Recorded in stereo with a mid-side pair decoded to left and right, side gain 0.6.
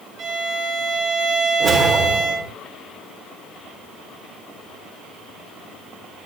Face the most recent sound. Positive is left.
turn(degrees=-40)